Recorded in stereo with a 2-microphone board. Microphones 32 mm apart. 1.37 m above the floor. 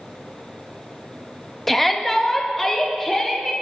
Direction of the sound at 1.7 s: 5° left (ahead or behind).